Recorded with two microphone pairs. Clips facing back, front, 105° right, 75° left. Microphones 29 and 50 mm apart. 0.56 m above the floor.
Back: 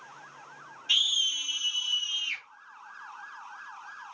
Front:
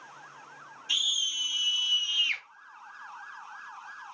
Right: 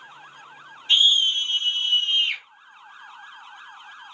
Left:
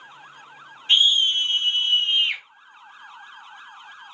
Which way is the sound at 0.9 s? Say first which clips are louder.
Back 3 dB, left 1 dB; 115° left.